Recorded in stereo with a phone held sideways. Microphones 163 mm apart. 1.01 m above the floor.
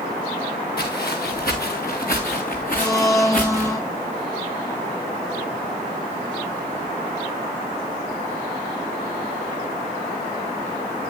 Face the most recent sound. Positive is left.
turn(degrees=20)  # may be behind; listen again after turning